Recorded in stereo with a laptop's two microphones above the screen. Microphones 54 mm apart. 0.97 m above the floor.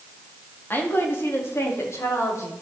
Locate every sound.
0.7 s a woman speaking: 35° left (ahead or behind), 2 m; by 2.5 s 60° left (ahead or behind), 4 m